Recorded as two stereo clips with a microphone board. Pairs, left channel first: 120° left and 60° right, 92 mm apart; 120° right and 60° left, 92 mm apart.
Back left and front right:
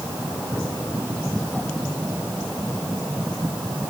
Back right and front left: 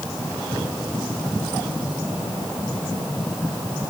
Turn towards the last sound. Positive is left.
No sound to turn to.